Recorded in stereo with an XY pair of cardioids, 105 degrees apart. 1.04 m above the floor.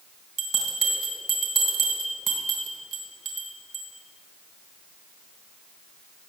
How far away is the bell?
About 3 m.